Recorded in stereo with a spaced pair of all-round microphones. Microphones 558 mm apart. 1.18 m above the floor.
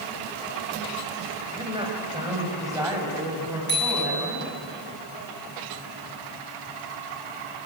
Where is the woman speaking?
10° right (ahead or behind), 4.5 m; by 4.5 s 5° right (ahead or behind), 8 m.